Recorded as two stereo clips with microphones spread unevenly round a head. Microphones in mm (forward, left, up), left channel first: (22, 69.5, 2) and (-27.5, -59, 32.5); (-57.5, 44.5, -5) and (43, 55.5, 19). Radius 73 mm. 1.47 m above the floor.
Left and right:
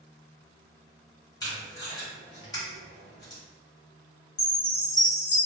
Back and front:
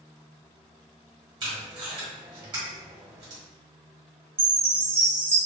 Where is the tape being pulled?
5° right, 1.4 m.